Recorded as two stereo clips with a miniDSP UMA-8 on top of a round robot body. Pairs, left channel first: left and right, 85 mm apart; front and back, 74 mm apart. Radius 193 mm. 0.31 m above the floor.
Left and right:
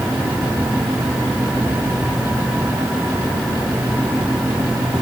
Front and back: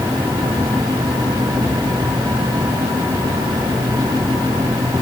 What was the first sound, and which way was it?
Only background noise.